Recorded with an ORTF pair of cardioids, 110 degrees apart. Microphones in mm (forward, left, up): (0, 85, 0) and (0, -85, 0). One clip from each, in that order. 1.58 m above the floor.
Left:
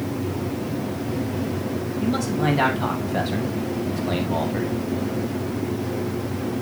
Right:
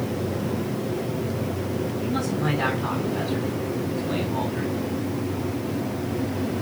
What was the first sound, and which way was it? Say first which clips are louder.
A man speaking: left 6 dB; 60° left.